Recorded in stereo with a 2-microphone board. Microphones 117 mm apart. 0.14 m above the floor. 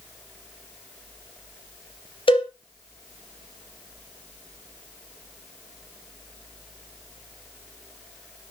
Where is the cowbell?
45° left (ahead or behind), 4 m.